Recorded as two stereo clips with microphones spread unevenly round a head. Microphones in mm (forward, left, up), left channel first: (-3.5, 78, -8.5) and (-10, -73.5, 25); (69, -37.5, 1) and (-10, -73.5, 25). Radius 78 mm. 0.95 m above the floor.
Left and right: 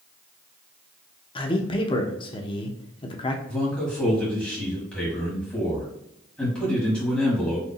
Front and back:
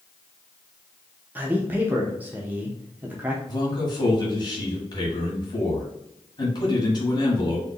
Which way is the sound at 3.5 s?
10° left.